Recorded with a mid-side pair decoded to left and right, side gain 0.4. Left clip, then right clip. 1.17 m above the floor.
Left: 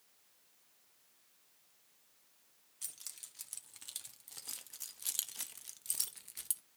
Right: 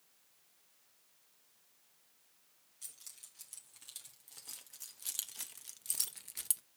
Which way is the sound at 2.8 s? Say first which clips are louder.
Left 4 dB; 50° left.